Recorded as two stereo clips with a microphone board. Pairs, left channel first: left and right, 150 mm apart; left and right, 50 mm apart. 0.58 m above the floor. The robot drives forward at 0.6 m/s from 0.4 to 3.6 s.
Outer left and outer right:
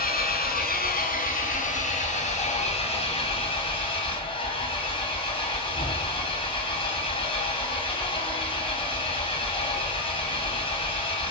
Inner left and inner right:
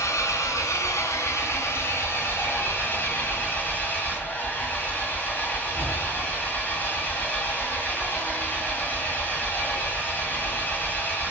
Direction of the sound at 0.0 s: 80° left.